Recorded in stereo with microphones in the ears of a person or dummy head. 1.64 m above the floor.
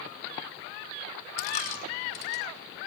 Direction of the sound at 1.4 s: 45° left (ahead or behind).